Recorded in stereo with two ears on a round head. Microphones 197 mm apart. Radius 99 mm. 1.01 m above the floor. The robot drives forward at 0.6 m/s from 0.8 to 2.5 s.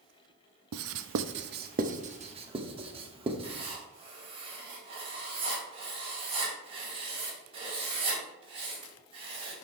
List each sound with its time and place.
0.7 s writing: 65° right (ahead or behind), 0.5 m; by 3.7 s 25° right (ahead or behind), 1.1 m
3.4 s writing: 25° right (ahead or behind), 3 m